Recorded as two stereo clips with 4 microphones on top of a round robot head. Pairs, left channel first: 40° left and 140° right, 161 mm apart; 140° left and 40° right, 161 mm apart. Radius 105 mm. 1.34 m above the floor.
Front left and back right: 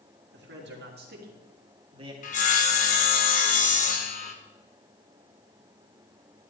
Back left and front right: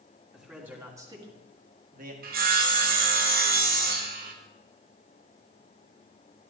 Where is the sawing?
5° right, 1.5 m.